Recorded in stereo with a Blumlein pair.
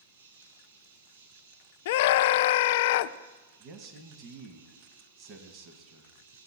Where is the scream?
55° left, 0.5 m.